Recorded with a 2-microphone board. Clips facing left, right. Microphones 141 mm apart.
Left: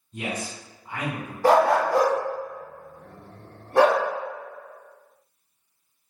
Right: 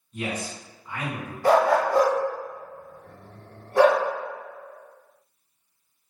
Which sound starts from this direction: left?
A dog barking, at 1.4 s.